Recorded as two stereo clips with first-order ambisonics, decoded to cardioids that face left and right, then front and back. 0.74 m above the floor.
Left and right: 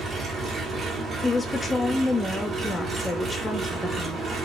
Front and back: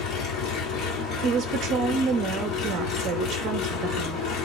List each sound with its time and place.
0.0 s an engine running: 30° right, 1.3 m
1.2 s a woman speaking: 165° left, 0.6 m